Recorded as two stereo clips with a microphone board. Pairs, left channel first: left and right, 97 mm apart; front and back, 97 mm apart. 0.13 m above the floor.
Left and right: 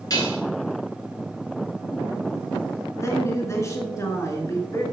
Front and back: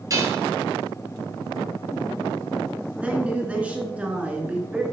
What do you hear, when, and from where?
0.1 s dishes clattering: 135° left, 1.5 m
3.0 s a woman speaking: 115° left, 1.5 m